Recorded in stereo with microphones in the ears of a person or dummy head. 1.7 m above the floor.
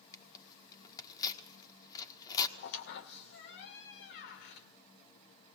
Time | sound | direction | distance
0.1 | tearing paper | 25° left (ahead or behind) | 1.8 m
2.6 | a squeak | 55° left (ahead or behind) | 2 m